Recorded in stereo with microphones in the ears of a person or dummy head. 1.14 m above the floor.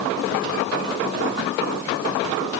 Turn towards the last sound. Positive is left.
No sound to turn to.